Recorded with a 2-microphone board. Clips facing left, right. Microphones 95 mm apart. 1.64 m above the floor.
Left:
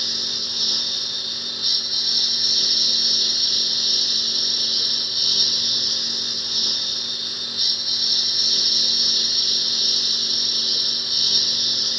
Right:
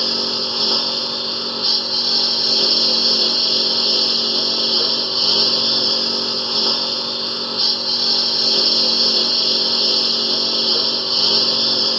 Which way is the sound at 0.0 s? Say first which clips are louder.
Right 12 dB; 60° right (ahead or behind).